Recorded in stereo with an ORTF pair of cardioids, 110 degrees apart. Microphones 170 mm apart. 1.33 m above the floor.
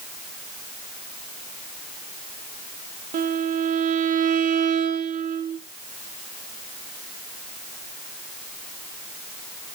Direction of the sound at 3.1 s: 55° right.